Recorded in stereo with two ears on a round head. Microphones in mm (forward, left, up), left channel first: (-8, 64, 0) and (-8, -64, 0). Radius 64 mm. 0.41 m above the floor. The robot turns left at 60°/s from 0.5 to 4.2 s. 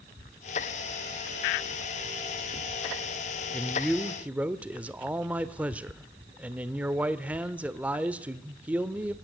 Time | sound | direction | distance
3.5 | a man speaking | 25° left | 1.0 m